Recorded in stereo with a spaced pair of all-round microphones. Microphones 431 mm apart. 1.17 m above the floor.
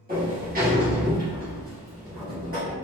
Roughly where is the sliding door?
Right.